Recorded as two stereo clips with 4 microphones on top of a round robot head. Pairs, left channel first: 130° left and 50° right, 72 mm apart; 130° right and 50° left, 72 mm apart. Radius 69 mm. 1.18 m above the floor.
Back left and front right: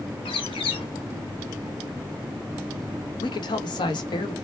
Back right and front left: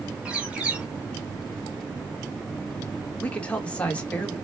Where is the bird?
125° left, 1.1 m.